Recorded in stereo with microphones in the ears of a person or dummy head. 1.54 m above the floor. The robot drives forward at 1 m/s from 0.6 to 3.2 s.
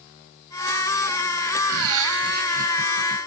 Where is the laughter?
80° right; by 3.2 s 25° right (ahead or behind).